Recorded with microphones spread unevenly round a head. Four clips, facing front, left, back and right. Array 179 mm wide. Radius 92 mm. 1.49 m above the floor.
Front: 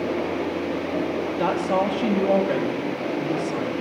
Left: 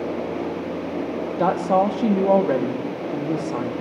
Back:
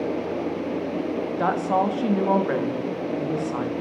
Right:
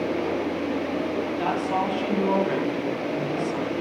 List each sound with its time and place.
1.4 s a woman speaking: 100° left, 2.5 m